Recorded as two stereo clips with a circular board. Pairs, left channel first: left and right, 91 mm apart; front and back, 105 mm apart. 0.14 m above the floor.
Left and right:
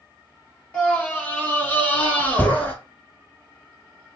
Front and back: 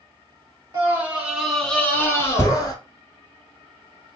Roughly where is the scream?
Behind left.